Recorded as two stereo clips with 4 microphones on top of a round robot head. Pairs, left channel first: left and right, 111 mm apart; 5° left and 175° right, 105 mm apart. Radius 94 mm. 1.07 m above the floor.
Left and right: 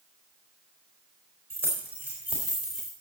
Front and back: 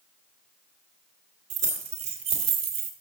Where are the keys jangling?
165° right, 3 m; by 2.9 s straight behind, 1.8 m.